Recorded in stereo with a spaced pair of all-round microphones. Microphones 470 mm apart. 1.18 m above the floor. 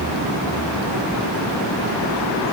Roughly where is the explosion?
I don't hear an explosion.